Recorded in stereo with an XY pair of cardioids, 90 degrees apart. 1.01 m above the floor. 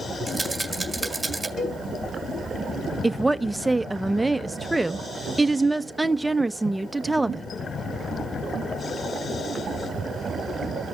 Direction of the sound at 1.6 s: 50° left.